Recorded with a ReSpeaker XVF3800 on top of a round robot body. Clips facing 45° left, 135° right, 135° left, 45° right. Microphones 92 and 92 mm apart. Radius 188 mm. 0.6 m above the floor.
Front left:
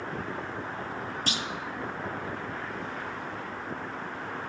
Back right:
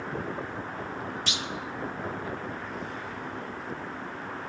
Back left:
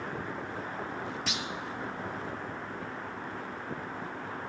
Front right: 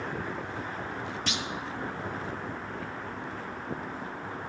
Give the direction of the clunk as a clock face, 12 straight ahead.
10 o'clock.